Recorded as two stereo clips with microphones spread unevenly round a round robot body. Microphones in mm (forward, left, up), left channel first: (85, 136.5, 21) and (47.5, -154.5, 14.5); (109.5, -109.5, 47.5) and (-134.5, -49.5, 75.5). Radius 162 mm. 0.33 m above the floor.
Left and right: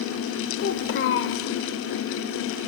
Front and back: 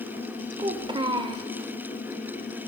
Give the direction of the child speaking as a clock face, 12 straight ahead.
9 o'clock.